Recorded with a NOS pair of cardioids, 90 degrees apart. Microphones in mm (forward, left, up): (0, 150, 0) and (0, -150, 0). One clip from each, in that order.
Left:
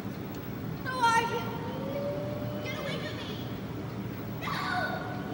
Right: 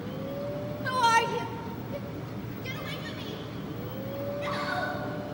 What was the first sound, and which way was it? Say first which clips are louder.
A shout: right 2 dB; 30° right.